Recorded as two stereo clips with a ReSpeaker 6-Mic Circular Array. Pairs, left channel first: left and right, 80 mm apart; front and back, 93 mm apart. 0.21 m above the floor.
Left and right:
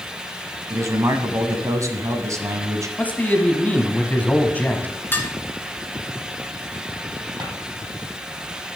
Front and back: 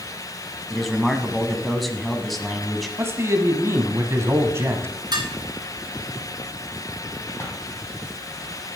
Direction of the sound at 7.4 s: 60° right.